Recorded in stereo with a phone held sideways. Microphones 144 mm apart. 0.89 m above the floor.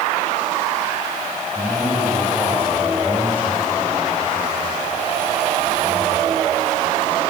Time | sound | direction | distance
1.6 | a man speaking | 10° left (ahead or behind) | 6 m